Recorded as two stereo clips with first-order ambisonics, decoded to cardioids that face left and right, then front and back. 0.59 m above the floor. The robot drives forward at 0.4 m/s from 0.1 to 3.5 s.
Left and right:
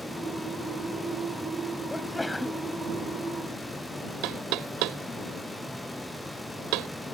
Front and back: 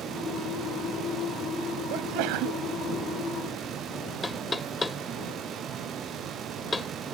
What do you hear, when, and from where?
1.9 s a sneeze: 175° left
4.2 s knocking: 80° right